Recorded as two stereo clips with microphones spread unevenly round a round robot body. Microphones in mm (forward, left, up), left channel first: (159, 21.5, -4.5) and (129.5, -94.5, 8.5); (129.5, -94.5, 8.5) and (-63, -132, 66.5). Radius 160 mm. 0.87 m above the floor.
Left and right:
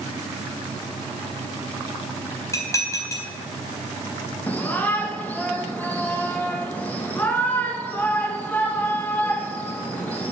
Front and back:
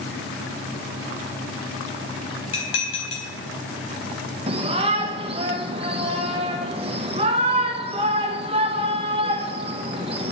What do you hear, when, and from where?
2.5 s dishes clattering: 10° left, 4 m
4.5 s a shout: 125° left, 0.8 m